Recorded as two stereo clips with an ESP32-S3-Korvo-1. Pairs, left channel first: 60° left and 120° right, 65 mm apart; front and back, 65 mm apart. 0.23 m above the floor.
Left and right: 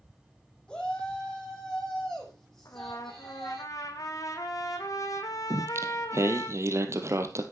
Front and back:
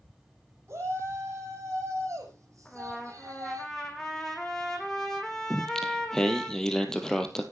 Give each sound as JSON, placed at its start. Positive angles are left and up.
{"t": 0.7, "sound": "a shout", "azimuth_deg": 135, "distance_m": 7.5}
{"t": 2.6, "sound": "a trumpet", "azimuth_deg": 85, "distance_m": 2.5}
{"t": 5.5, "sound": "singing", "azimuth_deg": -80, "distance_m": 1.8}